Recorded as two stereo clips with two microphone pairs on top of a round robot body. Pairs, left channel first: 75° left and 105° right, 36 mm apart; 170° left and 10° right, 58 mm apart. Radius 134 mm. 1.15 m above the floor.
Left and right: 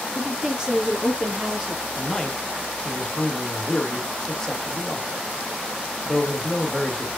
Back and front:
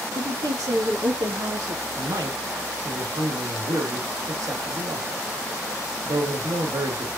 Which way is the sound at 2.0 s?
5° left.